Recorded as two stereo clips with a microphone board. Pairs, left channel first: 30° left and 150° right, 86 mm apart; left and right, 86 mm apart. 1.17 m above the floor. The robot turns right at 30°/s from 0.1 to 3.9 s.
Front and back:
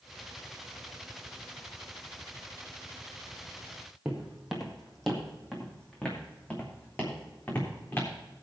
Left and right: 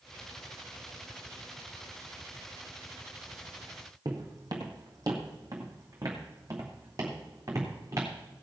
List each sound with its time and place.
4.0 s footsteps: 75° right, 1.8 m; by 8.1 s 35° right, 3.5 m